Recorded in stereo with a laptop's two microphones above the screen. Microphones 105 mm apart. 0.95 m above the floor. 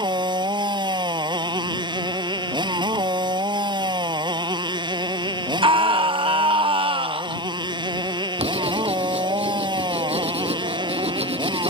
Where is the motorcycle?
45° right (ahead or behind).